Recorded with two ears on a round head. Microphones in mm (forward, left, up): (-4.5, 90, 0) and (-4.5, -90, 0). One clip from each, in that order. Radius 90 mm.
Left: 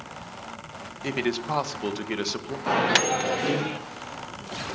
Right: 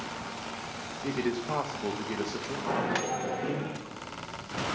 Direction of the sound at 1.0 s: 80° left.